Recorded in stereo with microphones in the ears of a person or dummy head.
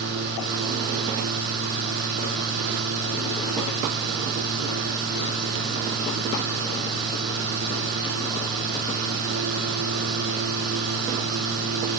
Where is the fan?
55° right (ahead or behind), 3 m.